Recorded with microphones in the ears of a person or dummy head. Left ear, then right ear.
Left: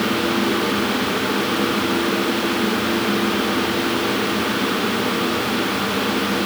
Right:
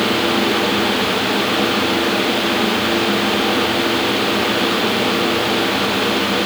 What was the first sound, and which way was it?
Only background noise.